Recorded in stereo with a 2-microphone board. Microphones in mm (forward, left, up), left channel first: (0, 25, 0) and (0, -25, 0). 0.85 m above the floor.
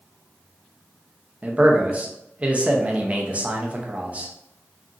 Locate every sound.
1.4 s a man speaking: 25° right (ahead or behind), 0.5 m